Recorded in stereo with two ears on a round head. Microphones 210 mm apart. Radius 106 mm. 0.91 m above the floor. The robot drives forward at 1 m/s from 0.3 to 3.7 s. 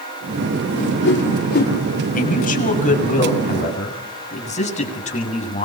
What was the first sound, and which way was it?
A whoosh, 60° left (ahead or behind).